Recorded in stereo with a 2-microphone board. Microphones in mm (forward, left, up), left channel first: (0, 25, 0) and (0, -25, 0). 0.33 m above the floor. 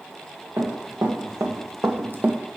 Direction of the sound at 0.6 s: 75° right (ahead or behind).